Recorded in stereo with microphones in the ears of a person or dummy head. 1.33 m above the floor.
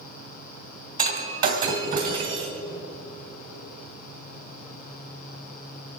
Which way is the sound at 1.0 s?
40° right (ahead or behind).